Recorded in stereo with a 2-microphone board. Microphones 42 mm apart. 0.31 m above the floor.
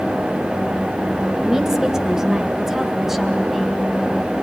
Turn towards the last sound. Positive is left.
turn(degrees=-5)  # may be behind; listen again after turning